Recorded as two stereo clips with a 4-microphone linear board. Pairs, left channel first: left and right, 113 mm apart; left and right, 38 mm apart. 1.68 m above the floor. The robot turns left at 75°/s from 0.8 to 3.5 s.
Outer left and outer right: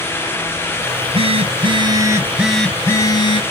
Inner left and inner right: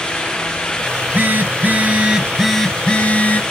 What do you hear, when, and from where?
0.9 s a phone buzzing: 55° right, 0.9 m; by 3.4 s 115° left, 0.9 m